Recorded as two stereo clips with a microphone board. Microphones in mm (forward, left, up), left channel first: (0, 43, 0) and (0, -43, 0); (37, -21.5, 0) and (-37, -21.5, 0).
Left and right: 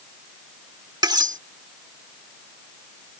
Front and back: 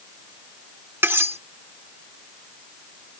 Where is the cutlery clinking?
120° right.